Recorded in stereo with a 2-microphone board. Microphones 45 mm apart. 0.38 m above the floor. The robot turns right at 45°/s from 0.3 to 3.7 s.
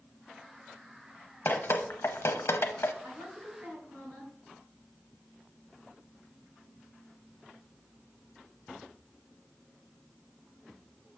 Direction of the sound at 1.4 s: 50° left (ahead or behind).